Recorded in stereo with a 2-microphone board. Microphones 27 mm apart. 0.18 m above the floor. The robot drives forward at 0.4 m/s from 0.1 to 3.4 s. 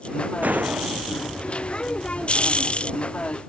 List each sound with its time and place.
0.4 s a gunshot: 85° right; by 1.6 s 80° right